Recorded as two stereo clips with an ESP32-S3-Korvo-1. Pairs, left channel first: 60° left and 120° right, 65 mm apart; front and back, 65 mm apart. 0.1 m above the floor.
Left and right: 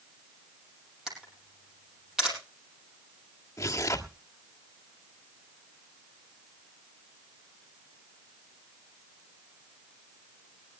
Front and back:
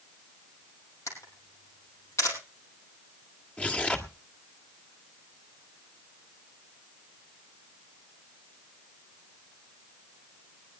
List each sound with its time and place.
1.1 s a camera shutter: 40° right, 4.5 m
3.6 s tearing paper: 70° left, 1.7 m